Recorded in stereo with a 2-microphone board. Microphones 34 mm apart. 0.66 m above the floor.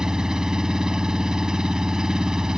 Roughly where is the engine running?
Right.